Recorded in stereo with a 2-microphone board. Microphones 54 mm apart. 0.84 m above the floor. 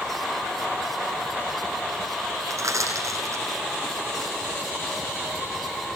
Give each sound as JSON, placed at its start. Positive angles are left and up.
{"t": 2.5, "sound": "crushing", "side_deg": -85, "distance_m": 10.0}